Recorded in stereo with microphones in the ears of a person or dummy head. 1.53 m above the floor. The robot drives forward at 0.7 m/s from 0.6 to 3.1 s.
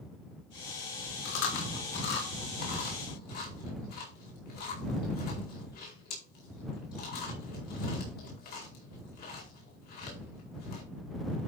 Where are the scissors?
No scissors in this recording.